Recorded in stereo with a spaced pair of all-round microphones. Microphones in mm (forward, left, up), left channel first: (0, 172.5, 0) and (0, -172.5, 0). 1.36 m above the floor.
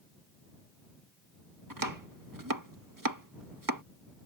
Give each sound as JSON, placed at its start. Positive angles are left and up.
{"t": 1.7, "sound": "chopping", "side_deg": -65}